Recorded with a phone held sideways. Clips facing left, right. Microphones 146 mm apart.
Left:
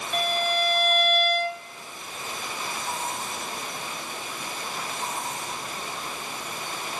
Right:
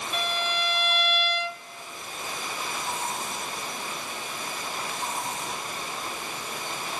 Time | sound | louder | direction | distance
0.1 | a violin | left 5 dB | 45° left (ahead or behind) | 0.7 m